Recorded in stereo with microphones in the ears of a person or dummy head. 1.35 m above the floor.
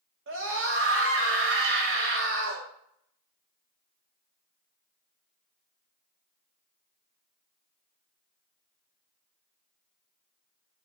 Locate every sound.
0.3 s a scream: 65° right (ahead or behind), 3 m